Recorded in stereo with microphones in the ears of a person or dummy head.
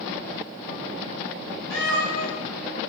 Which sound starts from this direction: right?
A cat meowing, at 1.7 s.